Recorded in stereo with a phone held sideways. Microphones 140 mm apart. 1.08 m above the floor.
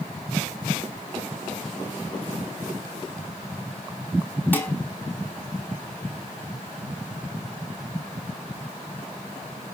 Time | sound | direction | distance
4.5 | dishes clattering | 15° left (ahead or behind) | 5 m